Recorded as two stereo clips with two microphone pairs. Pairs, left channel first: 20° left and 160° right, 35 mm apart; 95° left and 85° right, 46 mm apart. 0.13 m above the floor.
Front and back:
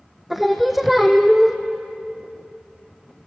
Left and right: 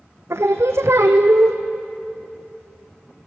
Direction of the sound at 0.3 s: 70° right.